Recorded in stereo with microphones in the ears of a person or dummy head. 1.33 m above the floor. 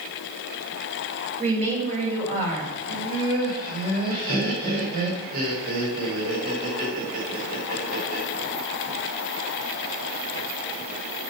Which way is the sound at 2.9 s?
55° right (ahead or behind).